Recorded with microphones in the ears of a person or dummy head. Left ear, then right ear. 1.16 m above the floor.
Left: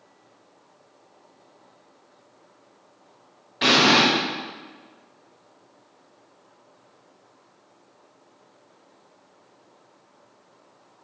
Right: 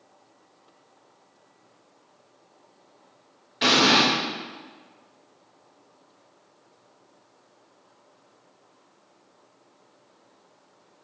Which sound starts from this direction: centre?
An explosion, at 3.6 s.